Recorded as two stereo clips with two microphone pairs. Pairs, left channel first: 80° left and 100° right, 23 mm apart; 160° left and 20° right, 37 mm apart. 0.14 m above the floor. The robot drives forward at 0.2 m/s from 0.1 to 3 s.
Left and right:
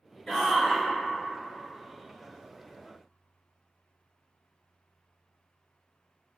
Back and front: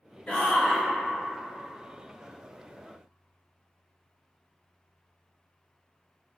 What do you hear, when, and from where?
0.3 s a shout: 165° left, 1.2 m